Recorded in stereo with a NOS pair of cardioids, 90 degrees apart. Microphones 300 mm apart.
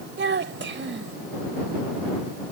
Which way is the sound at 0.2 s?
40° right.